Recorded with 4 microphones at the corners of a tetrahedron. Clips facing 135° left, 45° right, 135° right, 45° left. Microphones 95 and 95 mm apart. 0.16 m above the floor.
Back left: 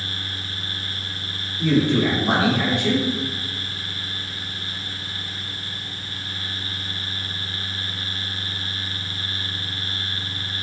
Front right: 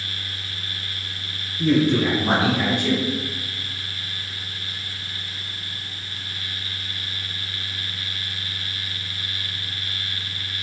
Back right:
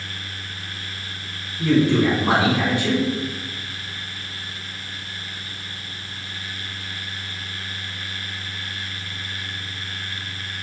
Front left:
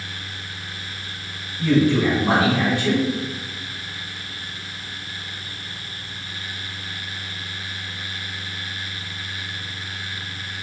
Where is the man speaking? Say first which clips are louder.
Even, even; 75° right, 1.6 m.